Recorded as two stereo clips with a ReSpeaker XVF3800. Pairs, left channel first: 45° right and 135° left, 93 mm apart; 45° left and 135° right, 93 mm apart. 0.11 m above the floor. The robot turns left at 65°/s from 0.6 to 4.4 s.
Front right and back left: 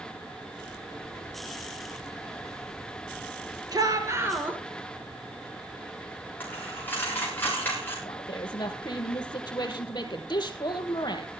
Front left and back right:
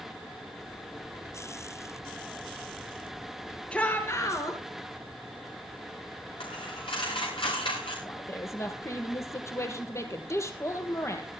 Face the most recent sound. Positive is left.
turn(degrees=-10)